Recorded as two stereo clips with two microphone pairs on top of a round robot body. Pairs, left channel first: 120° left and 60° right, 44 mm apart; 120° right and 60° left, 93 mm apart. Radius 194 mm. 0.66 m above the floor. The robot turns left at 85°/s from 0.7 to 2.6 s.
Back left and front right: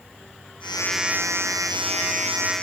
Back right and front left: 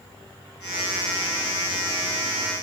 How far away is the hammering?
No hammering in this recording.